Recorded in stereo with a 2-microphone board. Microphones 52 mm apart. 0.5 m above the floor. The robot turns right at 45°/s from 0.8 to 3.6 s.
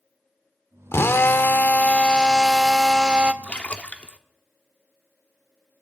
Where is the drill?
100° left, 0.7 m; by 3.3 s 150° right, 0.7 m.